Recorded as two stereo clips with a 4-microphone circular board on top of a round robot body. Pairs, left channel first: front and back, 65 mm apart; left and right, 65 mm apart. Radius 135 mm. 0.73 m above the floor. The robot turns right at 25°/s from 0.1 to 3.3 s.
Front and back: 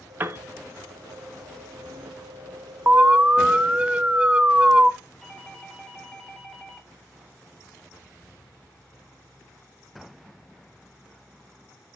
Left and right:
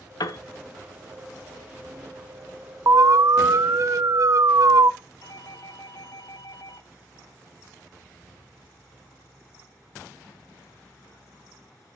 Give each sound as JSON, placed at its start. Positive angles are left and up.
{"t": 0.2, "sound": "a piano", "azimuth_deg": 120, "distance_m": 0.7}
{"t": 2.9, "sound": "an alarm", "azimuth_deg": -120, "distance_m": 0.6}
{"t": 5.2, "sound": "a doorbell", "azimuth_deg": 85, "distance_m": 2.0}